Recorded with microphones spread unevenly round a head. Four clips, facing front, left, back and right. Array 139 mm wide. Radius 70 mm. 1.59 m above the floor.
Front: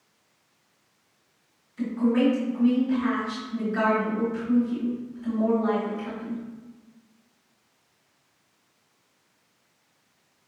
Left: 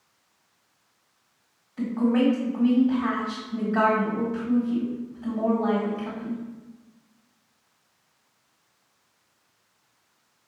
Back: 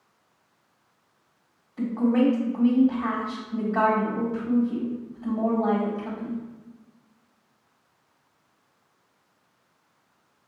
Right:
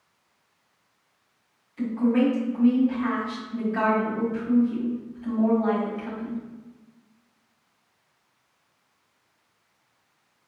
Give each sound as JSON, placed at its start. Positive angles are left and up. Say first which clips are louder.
{"t": 1.8, "sound": "a woman speaking", "louder": "even, back 1 dB", "azimuth_deg": 150, "distance_m": 1.5}